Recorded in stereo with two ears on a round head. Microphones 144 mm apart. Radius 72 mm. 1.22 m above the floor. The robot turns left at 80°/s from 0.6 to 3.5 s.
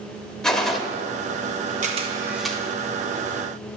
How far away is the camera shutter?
About 1.2 m.